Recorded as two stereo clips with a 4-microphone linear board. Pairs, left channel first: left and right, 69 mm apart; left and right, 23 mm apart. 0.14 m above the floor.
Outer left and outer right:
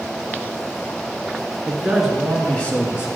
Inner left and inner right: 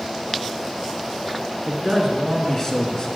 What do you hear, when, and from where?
1.7 s a man speaking: 15° right (ahead or behind), 1.9 m; by 3.1 s 35° left (ahead or behind), 1.5 m